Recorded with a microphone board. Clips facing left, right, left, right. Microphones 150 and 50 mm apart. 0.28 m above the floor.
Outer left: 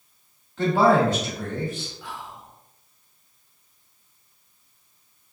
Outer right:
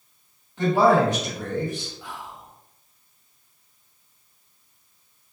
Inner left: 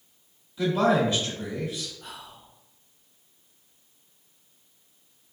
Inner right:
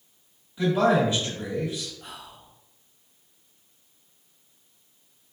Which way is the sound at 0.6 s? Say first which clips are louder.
Even, inner right 1 dB; 20° right (ahead or behind).